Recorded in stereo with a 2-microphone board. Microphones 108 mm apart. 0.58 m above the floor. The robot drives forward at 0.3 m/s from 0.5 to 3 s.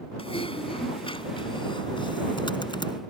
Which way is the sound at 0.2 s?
60° left (ahead or behind).